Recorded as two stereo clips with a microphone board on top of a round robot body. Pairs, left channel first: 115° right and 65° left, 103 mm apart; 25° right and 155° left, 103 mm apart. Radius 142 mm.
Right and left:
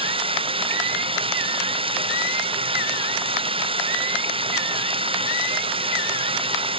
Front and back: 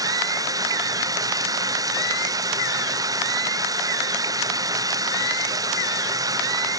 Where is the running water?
100° left.